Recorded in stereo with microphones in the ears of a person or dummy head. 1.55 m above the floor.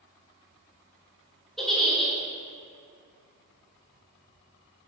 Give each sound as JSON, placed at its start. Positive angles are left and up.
{"t": 1.6, "sound": "a giggle", "side_deg": 0, "distance_m": 0.8}